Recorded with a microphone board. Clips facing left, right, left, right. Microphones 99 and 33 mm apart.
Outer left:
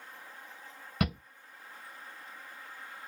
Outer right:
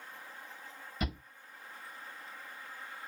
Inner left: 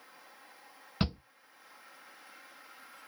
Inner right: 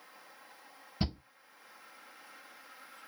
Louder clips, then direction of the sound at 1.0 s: Outer left 6 dB, inner left 3 dB; 65° left (ahead or behind).